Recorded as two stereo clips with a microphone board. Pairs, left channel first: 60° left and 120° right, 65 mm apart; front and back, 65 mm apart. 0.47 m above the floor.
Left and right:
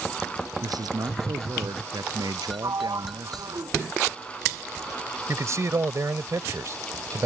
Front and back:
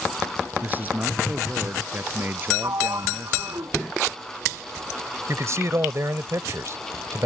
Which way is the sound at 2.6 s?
150° right.